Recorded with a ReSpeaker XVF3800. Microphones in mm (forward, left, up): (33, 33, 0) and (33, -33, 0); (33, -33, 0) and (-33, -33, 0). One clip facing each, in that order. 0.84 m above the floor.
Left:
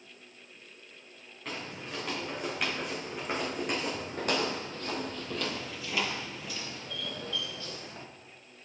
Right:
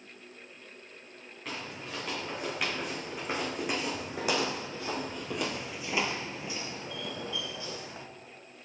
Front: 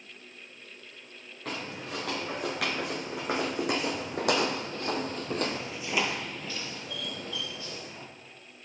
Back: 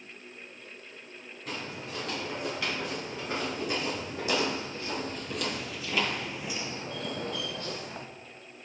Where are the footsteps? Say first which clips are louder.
Even, front 2 dB; straight ahead, 4 m; by 8.1 s 160° right, 1.7 m.